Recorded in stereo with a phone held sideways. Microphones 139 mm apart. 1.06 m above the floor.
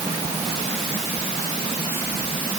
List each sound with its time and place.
Only background noise.